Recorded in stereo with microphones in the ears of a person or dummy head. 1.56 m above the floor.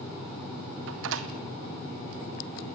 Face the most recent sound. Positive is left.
turn(degrees=-70)  # may be behind; listen again after turning